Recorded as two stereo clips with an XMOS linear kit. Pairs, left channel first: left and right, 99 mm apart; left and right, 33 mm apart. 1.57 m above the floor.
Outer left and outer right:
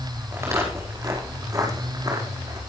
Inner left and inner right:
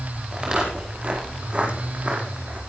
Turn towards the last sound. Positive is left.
turn(degrees=-45)  # may be behind; listen again after turning